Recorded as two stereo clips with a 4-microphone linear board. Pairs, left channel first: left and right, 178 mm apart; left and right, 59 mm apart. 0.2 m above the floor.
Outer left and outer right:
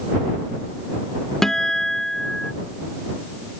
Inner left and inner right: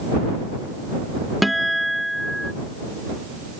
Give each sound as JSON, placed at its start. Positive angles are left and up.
{"t": 1.4, "sound": "a guitar", "side_deg": 0}